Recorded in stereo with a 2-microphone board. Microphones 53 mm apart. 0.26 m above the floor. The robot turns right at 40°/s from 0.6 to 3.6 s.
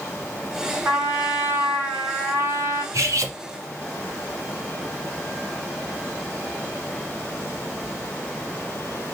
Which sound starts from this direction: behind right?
A trumpet, at 0.8 s.